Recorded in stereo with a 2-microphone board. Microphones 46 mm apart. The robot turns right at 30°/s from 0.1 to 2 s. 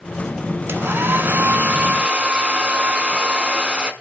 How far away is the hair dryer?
About 0.9 m.